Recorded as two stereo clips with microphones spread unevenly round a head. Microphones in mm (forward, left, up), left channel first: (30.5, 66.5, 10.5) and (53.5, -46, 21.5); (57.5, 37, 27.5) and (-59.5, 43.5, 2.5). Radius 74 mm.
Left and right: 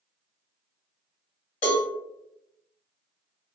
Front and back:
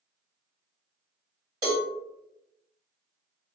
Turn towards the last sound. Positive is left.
turn(degrees=130)